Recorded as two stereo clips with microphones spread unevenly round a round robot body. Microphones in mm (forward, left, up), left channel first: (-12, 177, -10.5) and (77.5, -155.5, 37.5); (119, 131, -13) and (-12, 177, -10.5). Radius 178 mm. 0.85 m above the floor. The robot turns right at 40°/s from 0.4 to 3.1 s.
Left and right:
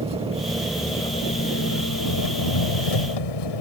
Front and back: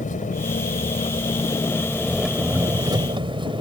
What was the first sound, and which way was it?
An engine running, straight ahead.